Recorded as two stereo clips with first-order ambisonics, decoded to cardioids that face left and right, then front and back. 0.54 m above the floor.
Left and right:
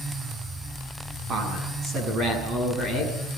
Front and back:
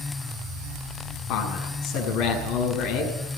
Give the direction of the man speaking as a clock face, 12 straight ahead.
1 o'clock.